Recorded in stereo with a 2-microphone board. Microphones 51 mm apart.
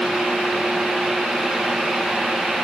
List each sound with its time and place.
Only background noise.